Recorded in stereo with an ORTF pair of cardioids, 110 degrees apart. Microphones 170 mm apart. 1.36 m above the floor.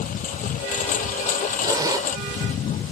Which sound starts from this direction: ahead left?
A lawn mower, at 0.0 s.